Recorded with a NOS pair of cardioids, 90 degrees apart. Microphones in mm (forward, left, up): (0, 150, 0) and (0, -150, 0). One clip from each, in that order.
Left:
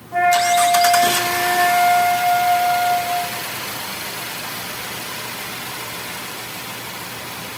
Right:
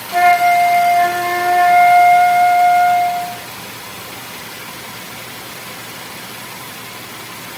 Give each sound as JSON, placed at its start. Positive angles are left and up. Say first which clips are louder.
{"t": 0.1, "sound": "a flute", "louder": "right 4 dB", "azimuth_deg": -25, "distance_m": 1.3}